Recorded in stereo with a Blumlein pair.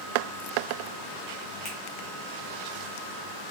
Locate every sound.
1.6 s a finger snap: 35° left, 1.6 m